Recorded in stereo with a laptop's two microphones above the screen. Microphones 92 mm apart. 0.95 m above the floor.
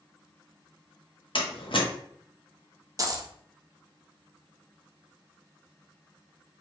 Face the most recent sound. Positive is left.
turn(degrees=-40)  # may be behind; listen again after turning